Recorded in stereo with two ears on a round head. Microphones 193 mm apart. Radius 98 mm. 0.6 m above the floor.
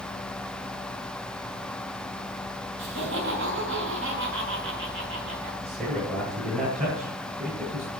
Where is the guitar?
No guitar in this recording.